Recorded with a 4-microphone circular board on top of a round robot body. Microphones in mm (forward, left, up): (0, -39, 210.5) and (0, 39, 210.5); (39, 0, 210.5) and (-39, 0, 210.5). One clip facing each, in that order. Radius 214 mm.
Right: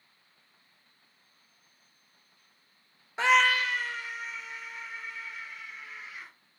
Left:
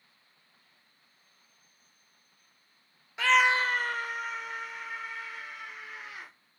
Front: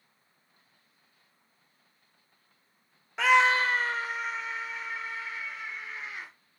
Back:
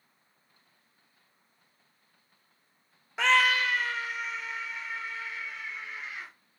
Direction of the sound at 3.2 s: 95° right.